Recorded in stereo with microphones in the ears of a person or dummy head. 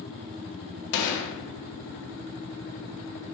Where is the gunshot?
70° left (ahead or behind), 0.5 m.